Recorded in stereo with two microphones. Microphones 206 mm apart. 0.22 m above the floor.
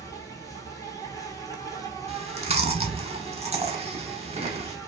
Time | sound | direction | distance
0.0 | an insect | 15° left (ahead or behind) | 0.8 m
2.1 | chewing | 30° right (ahead or behind) | 0.6 m